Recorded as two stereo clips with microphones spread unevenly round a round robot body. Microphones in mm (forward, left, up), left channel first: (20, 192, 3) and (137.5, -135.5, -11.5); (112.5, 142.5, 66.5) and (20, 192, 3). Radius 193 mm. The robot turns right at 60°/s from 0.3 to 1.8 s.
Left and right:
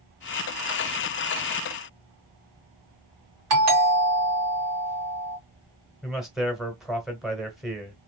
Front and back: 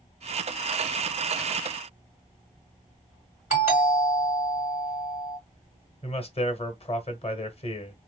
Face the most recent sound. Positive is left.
turn(degrees=15)